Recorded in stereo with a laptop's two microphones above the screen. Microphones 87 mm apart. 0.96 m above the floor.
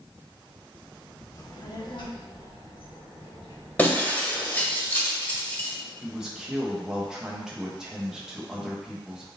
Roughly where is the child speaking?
Left.